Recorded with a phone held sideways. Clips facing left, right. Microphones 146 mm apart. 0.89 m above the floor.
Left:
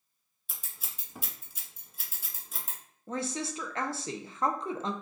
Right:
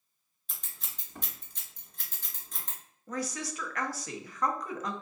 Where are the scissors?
5° left (ahead or behind), 0.9 m.